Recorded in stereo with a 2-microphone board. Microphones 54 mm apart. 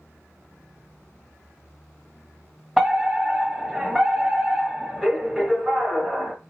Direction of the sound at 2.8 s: 5° right (ahead or behind).